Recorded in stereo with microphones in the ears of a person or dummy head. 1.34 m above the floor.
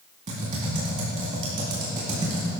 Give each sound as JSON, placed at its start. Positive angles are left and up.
{"t": 0.3, "sound": "typing on a keyboard", "side_deg": -35, "distance_m": 3.5}